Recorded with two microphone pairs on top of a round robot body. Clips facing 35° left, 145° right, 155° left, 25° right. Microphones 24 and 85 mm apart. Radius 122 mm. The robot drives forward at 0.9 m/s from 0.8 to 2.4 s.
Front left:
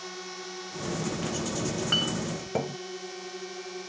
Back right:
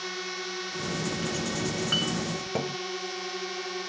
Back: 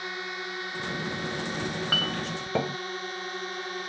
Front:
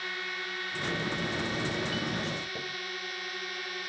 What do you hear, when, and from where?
0.0 s a drone: 150° right; by 3.9 s 155° right
1.6 s a clink: 125° left; by 2.8 s 135° left